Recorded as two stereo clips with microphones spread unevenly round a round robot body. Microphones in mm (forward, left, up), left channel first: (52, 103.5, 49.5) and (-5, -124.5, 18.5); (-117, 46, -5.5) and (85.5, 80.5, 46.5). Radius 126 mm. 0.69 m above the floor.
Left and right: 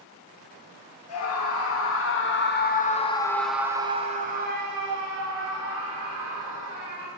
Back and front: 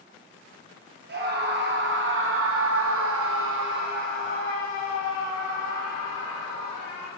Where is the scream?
55° left, 1.9 m; by 7.1 s 90° right, 3 m.